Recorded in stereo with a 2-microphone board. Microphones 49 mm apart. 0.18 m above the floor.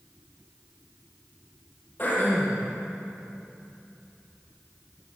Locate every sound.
2.0 s throat clearing: 40° left (ahead or behind), 6.5 m